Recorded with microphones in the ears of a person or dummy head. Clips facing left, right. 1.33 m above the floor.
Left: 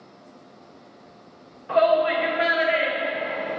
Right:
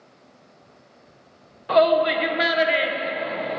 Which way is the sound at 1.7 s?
55° right (ahead or behind).